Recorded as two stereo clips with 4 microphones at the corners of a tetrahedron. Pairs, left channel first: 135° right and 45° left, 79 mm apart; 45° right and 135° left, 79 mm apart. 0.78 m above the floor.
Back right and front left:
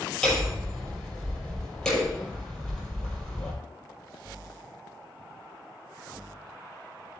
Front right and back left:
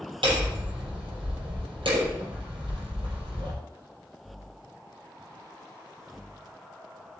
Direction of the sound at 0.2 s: 145° left.